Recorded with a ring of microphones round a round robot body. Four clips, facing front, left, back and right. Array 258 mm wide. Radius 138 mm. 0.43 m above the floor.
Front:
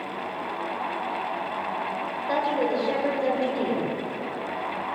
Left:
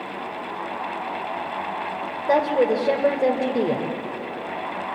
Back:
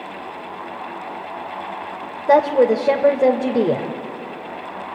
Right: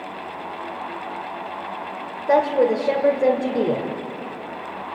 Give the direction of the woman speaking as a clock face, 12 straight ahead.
6 o'clock.